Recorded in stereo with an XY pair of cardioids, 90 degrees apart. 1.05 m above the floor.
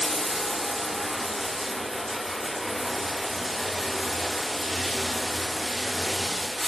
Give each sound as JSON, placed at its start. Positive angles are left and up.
{"t": 0.0, "sound": "running water", "azimuth_deg": 5, "distance_m": 0.9}